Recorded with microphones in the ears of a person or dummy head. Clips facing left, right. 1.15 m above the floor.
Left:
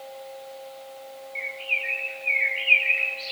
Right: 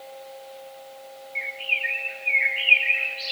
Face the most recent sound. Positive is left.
turn(degrees=-15)  # may be behind; listen again after turning